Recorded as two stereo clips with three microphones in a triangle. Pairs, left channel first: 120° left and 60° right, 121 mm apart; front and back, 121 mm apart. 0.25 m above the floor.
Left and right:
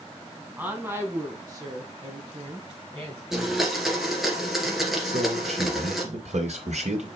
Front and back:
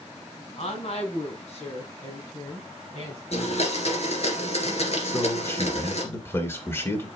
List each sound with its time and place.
0.6 s a woman speaking: 15° left, 2 m; by 3.2 s 25° right, 3.5 m
3.3 s a blender: 25° left, 2.5 m
5.0 s a man speaking: 70° right, 2.5 m